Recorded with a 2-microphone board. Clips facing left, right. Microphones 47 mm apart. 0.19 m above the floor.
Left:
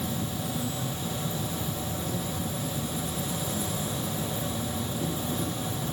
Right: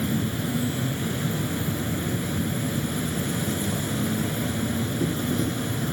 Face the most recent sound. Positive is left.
turn(degrees=-60)  # may be behind; listen again after turning